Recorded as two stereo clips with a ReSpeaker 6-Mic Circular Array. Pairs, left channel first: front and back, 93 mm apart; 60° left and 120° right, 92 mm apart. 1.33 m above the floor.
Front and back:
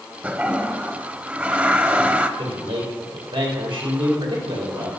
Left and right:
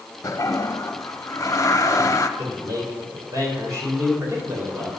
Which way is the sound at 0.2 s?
110° left.